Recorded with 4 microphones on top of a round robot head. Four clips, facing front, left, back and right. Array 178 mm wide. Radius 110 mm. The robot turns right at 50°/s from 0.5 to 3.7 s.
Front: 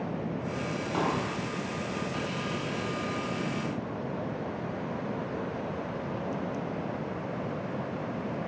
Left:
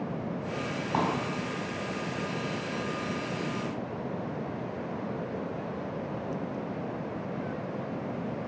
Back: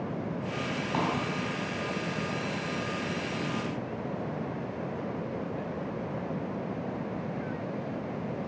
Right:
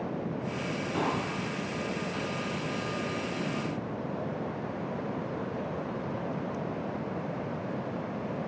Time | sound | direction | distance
0.9 | a pop | 110° left | 3.5 m